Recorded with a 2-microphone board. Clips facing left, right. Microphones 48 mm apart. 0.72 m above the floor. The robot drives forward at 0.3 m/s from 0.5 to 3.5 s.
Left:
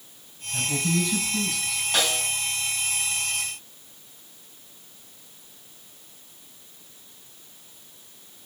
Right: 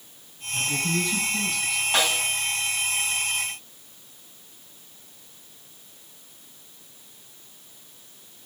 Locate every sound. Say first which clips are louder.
0.5 s a man speaking: even; 80° left, 5 m; by 1.8 s 75° left (ahead or behind), 5 m
1.9 s a snare drum: right 1 dB; 15° right (ahead or behind), 3 m